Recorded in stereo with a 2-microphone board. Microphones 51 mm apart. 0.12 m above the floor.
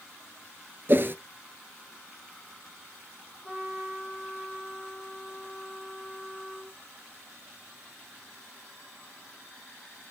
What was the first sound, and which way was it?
A whoosh, 45° right (ahead or behind).